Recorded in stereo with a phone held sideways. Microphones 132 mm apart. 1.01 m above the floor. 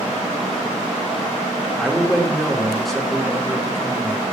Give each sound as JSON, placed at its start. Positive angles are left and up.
{"t": 1.8, "sound": "a man speaking", "side_deg": 0, "distance_m": 2.0}